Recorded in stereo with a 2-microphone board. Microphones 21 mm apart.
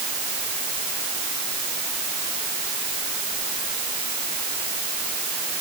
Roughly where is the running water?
No running water in this recording.